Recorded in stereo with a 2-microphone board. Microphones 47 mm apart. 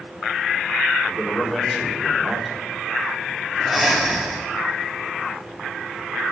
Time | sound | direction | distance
1.0 | a man speaking | 5° left (ahead or behind) | 4 m
3.6 | breathing | centre (ahead or behind) | 2 m